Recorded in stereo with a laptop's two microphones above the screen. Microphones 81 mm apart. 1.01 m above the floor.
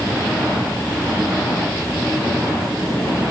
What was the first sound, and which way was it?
Only background noise.